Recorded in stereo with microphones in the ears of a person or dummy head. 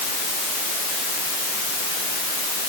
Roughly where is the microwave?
No microwave in this recording.